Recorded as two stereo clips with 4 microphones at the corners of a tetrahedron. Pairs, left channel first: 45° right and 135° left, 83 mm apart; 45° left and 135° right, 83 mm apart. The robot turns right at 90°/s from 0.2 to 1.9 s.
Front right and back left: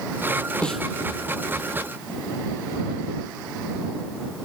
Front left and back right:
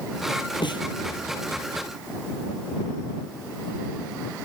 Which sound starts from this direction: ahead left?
A snare drum, at 0.6 s.